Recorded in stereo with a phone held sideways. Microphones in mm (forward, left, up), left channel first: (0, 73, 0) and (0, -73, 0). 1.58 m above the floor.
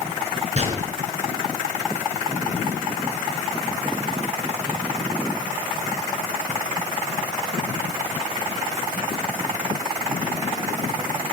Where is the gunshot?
45° right (ahead or behind), 3.5 m.